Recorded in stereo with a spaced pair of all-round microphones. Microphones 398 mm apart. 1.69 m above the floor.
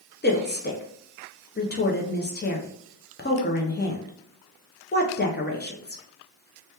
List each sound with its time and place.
0.2 s a woman speaking: 25° left (ahead or behind), 0.5 m